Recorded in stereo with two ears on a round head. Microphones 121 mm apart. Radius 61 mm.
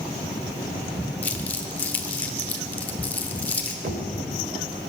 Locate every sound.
1.2 s crumpling: 15° left (ahead or behind), 1.2 m
3.8 s knocking: 70° right (ahead or behind), 2 m